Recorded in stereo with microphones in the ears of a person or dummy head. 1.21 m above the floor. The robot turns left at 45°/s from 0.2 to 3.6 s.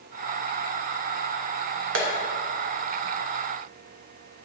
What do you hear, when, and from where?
1.9 s tapping: 75° right (ahead or behind), 1.0 m; by 2.1 s 70° right (ahead or behind), 1.0 m